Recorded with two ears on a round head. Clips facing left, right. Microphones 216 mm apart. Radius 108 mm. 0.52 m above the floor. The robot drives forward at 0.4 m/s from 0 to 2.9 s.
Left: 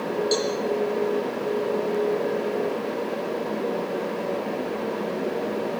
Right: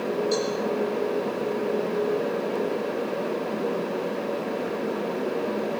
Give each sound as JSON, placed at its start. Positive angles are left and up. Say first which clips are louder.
{"t": 0.3, "sound": "a cowbell", "louder": "left 1 dB", "side_deg": 55, "distance_m": 7.5}